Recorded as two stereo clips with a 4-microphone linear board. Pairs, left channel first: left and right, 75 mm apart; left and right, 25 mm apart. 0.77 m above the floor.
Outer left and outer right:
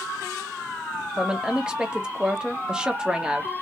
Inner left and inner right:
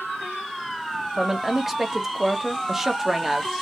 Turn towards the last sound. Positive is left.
turn(degrees=-10)  # may be behind; listen again after turning